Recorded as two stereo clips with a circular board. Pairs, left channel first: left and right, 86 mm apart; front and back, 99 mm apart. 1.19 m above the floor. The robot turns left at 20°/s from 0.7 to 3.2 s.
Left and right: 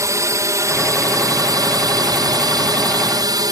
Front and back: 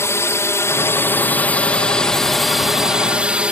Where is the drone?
55° right; by 3.5 s 105° right.